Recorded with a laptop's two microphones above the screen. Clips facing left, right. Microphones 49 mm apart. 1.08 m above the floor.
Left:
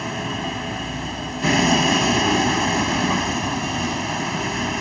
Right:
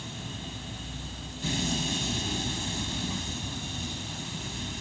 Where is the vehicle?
65° left (ahead or behind).